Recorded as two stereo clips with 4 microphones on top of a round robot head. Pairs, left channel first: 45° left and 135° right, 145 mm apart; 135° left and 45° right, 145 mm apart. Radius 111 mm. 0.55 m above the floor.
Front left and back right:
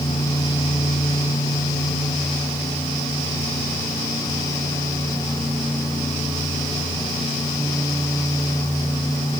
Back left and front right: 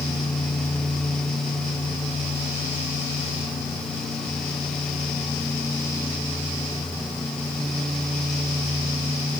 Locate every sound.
Only background noise.